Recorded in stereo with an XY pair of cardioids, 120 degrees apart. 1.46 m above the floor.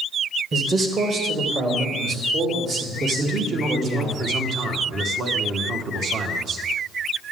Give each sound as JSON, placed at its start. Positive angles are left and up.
{"t": 0.5, "sound": "a man speaking", "azimuth_deg": -35, "distance_m": 1.4}
{"t": 3.2, "sound": "a man speaking", "azimuth_deg": -55, "distance_m": 1.5}